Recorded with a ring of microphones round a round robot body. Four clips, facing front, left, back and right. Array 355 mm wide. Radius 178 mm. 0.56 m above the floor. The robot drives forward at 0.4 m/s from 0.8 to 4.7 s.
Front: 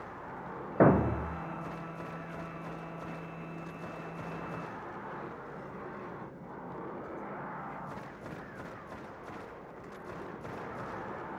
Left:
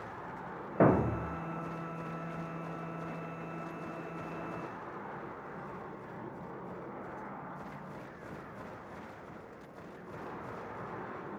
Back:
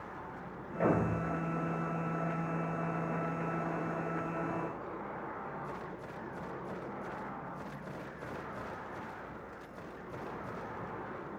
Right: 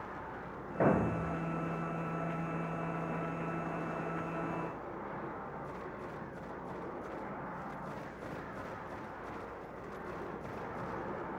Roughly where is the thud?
Ahead left.